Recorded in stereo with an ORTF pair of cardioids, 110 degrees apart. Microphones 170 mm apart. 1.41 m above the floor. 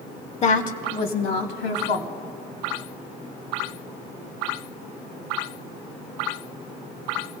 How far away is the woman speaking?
About 1.1 m.